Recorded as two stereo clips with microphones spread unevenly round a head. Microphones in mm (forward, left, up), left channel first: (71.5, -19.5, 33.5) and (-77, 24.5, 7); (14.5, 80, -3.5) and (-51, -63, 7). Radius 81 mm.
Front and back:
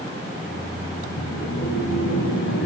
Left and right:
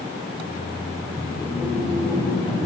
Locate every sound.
0.3 s laughter: 10° right, 5.5 m